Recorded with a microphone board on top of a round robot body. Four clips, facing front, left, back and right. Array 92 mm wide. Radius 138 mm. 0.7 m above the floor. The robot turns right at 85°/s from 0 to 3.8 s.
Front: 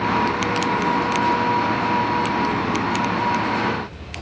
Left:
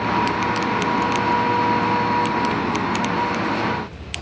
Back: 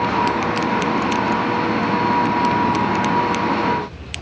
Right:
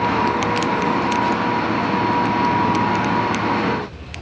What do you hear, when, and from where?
Only background noise.